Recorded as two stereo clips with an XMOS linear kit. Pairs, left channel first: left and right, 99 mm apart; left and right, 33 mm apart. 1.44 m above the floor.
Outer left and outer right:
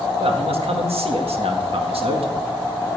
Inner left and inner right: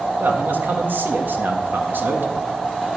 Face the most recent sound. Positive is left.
turn(degrees=-75)  # may be behind; listen again after turning